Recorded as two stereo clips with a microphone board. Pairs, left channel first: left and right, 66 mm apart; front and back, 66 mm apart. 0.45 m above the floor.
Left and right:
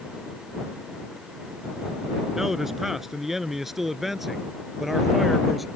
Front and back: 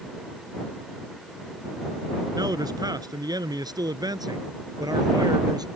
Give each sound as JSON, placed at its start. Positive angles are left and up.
{"t": 2.4, "sound": "a man speaking", "azimuth_deg": -175}